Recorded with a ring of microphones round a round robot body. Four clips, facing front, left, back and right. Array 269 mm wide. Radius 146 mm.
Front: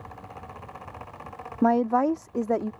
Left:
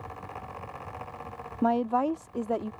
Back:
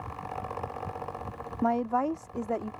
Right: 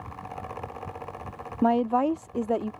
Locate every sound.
1.6 s a woman speaking: 30° right